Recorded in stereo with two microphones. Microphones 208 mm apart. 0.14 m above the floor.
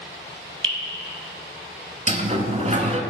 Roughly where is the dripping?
Right.